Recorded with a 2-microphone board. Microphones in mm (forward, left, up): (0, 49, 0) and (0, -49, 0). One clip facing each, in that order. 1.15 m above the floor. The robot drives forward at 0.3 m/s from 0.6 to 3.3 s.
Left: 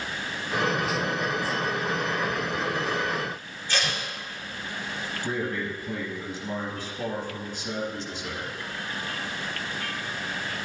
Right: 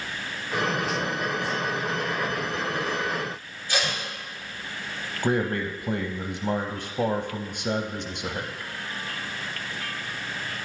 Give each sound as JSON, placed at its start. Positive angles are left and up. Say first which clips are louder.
{"t": 3.7, "sound": "tape being pulled", "louder": "right 1 dB", "side_deg": -10, "distance_m": 2.0}
{"t": 5.2, "sound": "a man speaking", "louder": "right 6 dB", "side_deg": -55, "distance_m": 0.6}